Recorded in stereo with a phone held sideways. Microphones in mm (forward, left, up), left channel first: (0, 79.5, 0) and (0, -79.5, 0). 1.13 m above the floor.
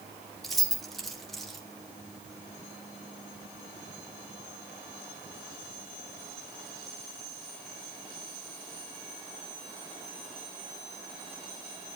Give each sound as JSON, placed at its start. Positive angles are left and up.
{"t": 0.4, "sound": "keys jangling", "side_deg": 0, "distance_m": 1.7}